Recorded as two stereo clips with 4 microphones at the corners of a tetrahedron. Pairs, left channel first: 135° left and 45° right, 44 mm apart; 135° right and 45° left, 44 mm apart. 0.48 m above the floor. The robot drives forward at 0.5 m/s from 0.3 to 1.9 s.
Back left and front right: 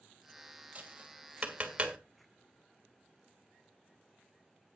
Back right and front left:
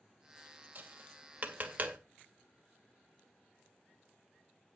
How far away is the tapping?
About 2.5 m.